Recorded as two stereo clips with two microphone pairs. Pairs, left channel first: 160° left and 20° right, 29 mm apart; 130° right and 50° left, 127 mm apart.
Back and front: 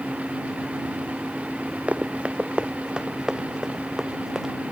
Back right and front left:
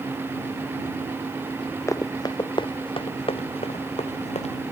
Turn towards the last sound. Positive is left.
turn(degrees=-95)